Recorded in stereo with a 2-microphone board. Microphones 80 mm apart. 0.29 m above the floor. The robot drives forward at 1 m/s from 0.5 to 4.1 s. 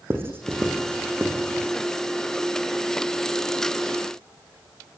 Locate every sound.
0.1 s writing: 30° right (ahead or behind), 5 m; by 1.7 s 20° right (ahead or behind), 6 m